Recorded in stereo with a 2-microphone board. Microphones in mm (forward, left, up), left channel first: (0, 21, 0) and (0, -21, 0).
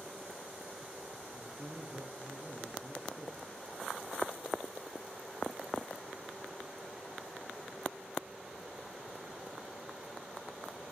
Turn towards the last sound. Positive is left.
turn(degrees=-55)  # may be behind; listen again after turning